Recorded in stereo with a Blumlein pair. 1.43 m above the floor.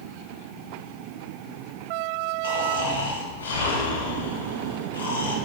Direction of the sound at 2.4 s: 65° left.